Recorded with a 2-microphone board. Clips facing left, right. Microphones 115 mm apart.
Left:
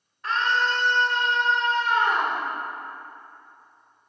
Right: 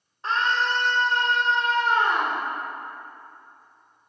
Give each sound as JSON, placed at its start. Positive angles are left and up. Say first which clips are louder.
{"t": 0.2, "sound": "a scream", "louder": "even", "side_deg": -30, "distance_m": 1.7}